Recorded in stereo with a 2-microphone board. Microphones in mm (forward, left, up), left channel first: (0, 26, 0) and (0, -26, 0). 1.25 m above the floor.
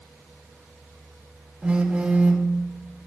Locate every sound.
1.6 s a phone buzzing: 15° right (ahead or behind), 2.5 m